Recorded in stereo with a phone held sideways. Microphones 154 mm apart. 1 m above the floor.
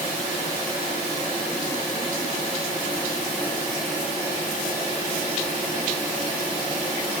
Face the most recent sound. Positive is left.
No sound to turn to.